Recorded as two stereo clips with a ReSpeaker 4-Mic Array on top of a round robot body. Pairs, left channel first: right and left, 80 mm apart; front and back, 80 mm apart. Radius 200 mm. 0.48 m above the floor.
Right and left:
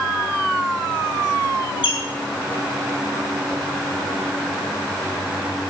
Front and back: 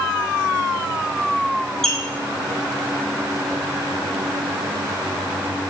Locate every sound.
1.8 s a squeak: 85° right, 3 m